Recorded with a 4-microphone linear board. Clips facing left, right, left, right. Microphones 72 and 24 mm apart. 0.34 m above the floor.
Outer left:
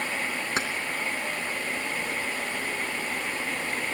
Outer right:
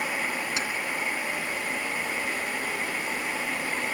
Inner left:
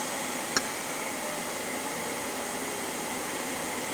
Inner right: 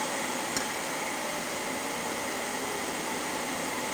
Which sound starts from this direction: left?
Keys jangling, at 0.6 s.